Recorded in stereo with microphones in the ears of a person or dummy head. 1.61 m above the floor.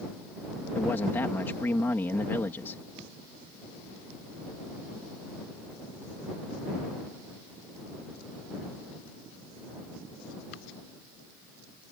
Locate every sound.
0.8 s a man speaking: 10° left (ahead or behind)